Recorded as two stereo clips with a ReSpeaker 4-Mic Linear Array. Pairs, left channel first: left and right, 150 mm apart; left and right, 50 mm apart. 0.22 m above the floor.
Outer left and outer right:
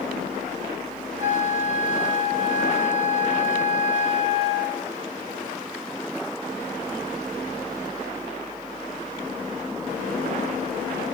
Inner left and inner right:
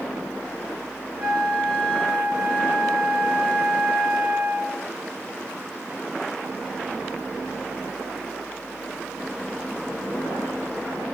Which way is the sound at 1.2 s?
15° right (ahead or behind).